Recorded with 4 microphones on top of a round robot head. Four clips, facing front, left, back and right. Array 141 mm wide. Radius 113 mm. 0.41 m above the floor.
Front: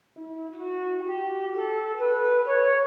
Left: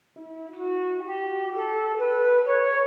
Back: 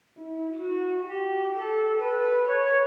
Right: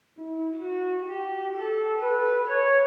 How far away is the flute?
About 1.9 m.